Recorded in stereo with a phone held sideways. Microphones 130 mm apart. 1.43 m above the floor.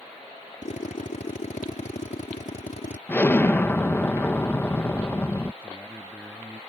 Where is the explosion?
15° left (ahead or behind).